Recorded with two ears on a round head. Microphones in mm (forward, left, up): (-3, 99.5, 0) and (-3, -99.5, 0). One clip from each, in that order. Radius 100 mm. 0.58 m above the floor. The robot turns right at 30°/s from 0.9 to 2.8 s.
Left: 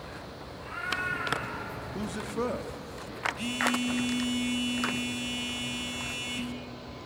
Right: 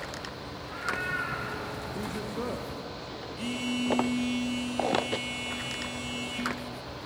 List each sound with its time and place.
0.6 s a cat meowing: 45° left (ahead or behind), 5.5 m; by 1.9 s 15° left (ahead or behind), 5.5 m
1.9 s a man speaking: 25° left (ahead or behind), 0.6 m; by 3.3 s 20° left (ahead or behind), 0.6 m
3.4 s a phone buzzing: 20° left (ahead or behind), 0.8 m